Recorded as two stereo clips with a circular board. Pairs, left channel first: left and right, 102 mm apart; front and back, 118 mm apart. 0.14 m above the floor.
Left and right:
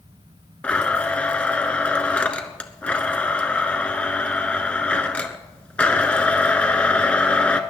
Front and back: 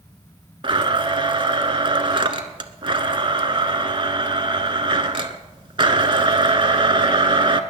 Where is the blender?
165° left, 0.9 m.